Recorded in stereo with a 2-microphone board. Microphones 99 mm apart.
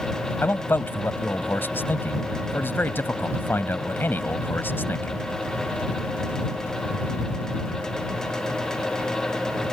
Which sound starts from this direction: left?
A man speaking, at 0.4 s.